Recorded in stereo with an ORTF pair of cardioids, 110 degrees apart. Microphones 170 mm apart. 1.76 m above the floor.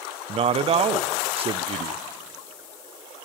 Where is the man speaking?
35° right, 0.5 m.